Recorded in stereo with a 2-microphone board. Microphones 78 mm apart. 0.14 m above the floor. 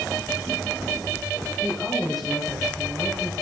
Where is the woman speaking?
Centre (ahead or behind), 3.5 m.